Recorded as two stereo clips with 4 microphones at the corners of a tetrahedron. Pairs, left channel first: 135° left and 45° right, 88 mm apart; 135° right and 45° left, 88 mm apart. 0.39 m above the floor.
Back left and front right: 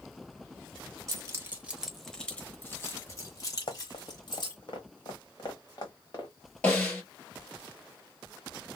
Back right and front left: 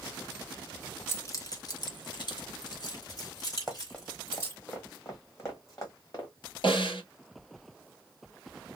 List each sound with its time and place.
1.1 s keys jangling: 85° right, 0.8 m; by 4.6 s 170° left, 1.9 m
3.7 s running footsteps: 140° left, 0.8 m; by 6.3 s straight behind, 1.9 m
6.6 s a snare drum: 150° right, 1.5 m